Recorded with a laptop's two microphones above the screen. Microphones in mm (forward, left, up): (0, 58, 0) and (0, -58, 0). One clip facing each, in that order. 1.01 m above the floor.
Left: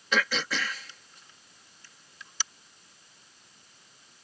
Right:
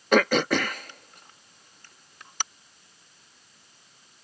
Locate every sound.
0.1 s throat clearing: 50° right (ahead or behind)